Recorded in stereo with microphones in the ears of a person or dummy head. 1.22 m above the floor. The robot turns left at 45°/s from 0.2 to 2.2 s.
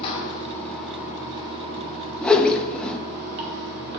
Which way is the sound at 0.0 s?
30° left.